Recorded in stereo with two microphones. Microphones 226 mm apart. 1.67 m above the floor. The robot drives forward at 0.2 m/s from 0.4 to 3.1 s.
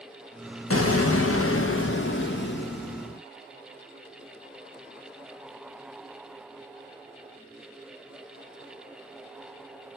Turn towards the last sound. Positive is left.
turn(degrees=50)  # may be behind; listen again after turning